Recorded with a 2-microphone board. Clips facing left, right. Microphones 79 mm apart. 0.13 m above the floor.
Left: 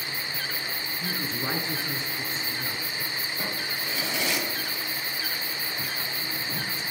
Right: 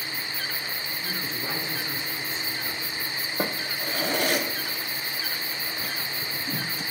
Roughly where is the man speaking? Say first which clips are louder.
Left 3 dB; left.